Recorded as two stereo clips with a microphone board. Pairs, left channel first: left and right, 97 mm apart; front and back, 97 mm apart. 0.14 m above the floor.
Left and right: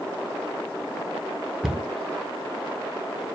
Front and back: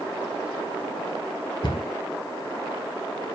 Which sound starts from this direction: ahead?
A cupboard door, at 1.6 s.